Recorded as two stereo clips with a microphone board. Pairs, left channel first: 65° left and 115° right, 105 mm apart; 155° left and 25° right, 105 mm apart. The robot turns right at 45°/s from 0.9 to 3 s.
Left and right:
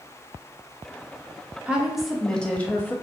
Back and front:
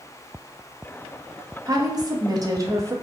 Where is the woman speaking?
40° right, 0.6 m; by 2.9 s 15° left, 0.6 m.